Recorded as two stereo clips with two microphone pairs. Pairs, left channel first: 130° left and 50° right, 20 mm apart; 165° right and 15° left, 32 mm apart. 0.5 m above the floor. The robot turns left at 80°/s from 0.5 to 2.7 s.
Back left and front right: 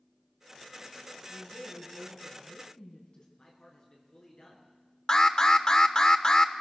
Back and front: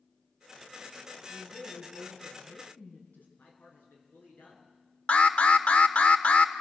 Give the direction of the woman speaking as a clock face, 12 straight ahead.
3 o'clock.